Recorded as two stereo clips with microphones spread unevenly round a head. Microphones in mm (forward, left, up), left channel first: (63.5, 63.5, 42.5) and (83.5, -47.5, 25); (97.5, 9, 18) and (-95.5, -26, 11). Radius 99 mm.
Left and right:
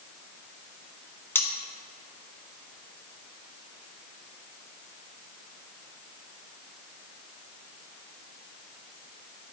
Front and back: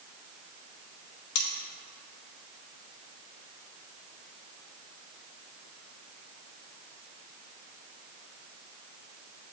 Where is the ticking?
I don't hear ticking.